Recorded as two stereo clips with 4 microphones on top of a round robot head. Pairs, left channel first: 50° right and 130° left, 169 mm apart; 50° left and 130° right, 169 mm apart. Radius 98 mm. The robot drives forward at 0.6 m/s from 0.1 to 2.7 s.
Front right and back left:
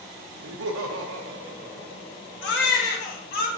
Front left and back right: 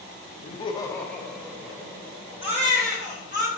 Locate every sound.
0.4 s laughter: 105° left, 0.6 m; by 2.8 s 160° left, 1.6 m
2.4 s a baby crying: 70° right, 0.9 m; by 3.5 s 85° right, 0.8 m